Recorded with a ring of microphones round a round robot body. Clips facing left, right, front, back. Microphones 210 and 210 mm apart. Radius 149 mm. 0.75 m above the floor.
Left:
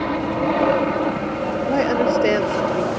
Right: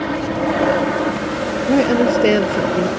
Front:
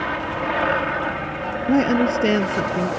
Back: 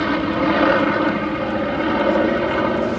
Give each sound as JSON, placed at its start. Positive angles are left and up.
{"t": 0.0, "sound": "an aircraft", "azimuth_deg": -175}
{"t": 1.7, "sound": "a woman speaking", "azimuth_deg": -35}